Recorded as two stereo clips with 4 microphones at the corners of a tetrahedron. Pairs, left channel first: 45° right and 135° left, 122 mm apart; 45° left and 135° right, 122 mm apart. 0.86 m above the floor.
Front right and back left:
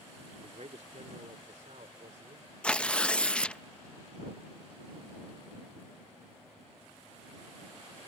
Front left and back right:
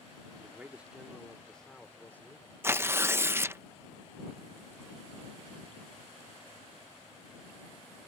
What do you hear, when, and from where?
0.4 s a man speaking: 155° left; by 2.5 s 115° left
2.6 s tearing paper: 105° right